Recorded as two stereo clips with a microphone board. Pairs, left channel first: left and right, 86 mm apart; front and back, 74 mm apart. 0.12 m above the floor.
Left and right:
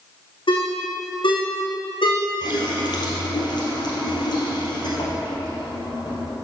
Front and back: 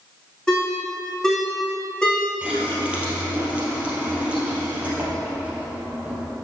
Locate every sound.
0.5 s a ringtone: 80° left, 3 m
2.4 s a running tap: 110° left, 2 m